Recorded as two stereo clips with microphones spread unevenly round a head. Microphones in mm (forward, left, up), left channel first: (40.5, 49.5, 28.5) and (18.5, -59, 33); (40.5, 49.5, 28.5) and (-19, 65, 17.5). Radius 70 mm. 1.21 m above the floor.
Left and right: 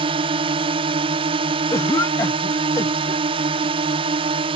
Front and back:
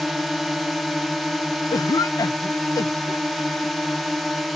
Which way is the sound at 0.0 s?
110° right.